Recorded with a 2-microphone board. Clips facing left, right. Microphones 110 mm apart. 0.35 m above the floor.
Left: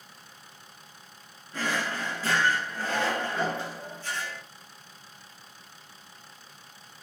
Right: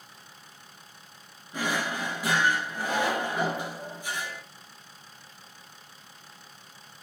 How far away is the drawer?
About 0.6 m.